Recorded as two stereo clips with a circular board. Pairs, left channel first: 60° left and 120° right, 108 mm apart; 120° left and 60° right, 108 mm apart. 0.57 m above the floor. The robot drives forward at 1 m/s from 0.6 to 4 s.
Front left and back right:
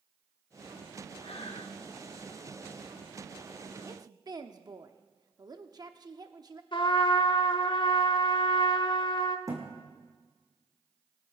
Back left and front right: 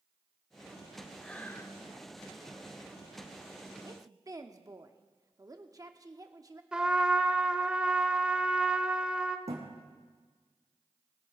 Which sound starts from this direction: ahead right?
A thud, at 9.5 s.